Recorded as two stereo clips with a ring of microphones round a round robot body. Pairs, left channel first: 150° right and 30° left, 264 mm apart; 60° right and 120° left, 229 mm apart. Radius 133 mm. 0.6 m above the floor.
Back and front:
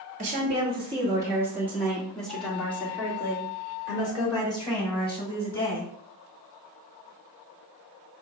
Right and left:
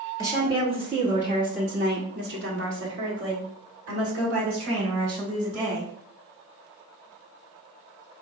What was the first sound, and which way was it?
A woman speaking, 55° left.